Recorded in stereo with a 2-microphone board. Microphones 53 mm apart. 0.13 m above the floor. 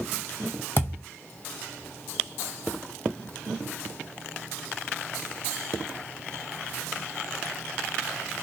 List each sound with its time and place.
0.8 s a thud: 40° left (ahead or behind), 0.9 m